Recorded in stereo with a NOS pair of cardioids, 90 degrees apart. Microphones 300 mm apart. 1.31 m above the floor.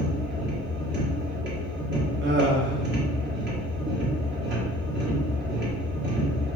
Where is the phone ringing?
No phone ringing in this recording.